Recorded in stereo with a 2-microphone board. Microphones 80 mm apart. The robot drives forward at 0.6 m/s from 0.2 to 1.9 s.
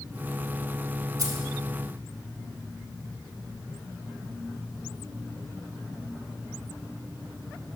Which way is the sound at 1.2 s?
50° right (ahead or behind).